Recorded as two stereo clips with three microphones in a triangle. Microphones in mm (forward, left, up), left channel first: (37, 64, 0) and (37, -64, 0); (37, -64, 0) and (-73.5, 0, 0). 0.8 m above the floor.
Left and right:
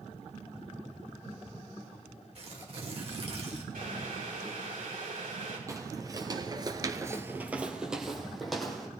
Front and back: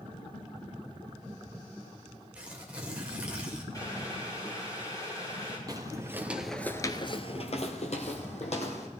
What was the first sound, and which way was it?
Tearing paper, 130° right.